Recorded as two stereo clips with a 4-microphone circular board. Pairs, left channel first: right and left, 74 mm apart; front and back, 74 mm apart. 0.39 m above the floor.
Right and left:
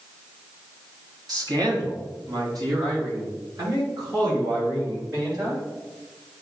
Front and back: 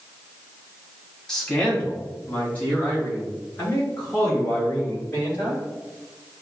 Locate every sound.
1.3 s a man speaking: 80° left, 2.5 m; by 5.6 s 55° left, 8 m